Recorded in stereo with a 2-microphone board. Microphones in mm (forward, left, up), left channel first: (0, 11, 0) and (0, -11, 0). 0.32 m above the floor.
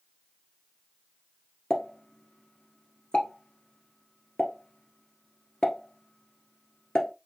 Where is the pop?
35° left (ahead or behind), 1.3 m.